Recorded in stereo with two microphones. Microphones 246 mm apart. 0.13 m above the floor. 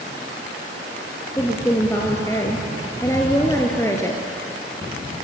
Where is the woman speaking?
10° left (ahead or behind), 2 m.